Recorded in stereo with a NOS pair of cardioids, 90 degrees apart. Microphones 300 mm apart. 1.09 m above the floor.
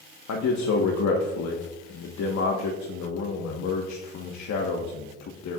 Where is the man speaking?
60° left, 1.4 m.